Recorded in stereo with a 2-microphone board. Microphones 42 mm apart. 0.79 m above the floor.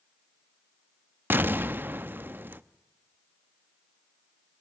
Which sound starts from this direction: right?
An explosion, at 1.3 s.